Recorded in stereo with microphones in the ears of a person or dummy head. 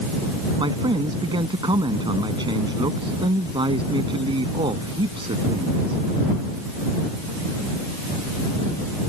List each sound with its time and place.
0.6 s a man speaking: 20° right (ahead or behind)